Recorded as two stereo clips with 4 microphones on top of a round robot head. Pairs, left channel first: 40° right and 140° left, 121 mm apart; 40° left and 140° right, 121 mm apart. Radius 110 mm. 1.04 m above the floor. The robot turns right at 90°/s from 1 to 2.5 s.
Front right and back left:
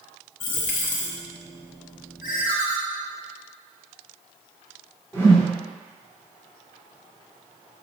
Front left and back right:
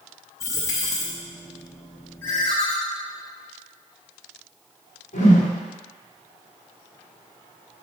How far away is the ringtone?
About 0.8 m.